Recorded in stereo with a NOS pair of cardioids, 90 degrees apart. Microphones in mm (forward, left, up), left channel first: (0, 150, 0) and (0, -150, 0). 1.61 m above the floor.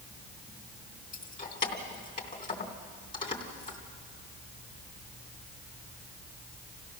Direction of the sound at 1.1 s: 25° left.